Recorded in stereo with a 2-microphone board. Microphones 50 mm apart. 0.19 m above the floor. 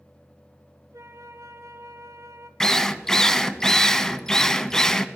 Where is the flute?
75° right (ahead or behind), 0.7 m.